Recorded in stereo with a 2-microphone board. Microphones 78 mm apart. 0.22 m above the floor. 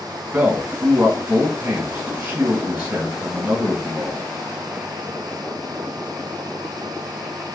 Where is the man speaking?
15° right (ahead or behind), 1.7 m.